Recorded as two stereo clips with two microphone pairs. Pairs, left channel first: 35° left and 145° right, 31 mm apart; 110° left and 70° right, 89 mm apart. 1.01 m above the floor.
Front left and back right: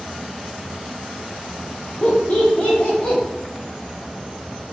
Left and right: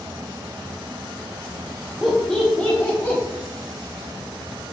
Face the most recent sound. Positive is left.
turn(degrees=65)